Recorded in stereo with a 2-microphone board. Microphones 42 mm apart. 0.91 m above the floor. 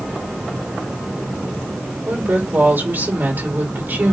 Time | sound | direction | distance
2.0 | a woman speaking | 50° right (ahead or behind) | 2.5 m